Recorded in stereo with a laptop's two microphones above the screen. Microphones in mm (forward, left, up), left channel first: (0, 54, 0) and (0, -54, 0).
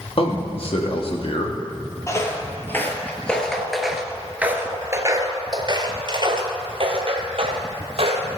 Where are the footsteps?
25° left (ahead or behind), 1.6 m; by 8.3 s 55° right (ahead or behind), 2.5 m.